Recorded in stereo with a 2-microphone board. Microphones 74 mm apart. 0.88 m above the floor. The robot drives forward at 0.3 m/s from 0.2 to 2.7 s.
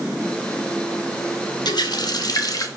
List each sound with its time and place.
1.6 s a running tap: 70° left (ahead or behind), 0.8 m; by 2.7 s 55° left (ahead or behind), 0.9 m